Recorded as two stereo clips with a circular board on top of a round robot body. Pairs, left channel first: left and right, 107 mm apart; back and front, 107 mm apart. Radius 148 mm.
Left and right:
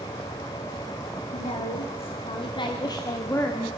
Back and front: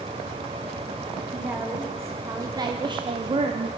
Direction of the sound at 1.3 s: 75° left.